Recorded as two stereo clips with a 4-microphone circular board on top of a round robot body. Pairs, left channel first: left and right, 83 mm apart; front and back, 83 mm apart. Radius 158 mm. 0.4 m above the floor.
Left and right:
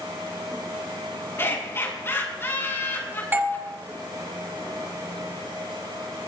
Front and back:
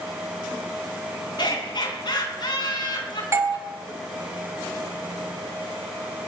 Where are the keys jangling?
I don't hear keys jangling.